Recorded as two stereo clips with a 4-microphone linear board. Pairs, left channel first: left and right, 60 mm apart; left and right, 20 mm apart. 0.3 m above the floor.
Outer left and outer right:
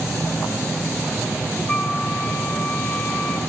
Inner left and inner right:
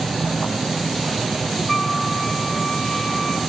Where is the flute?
30° left (ahead or behind), 2.5 m.